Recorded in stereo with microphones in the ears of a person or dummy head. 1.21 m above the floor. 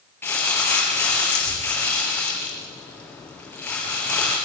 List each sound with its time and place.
0.2 s crumpling: 5° left (ahead or behind), 6 m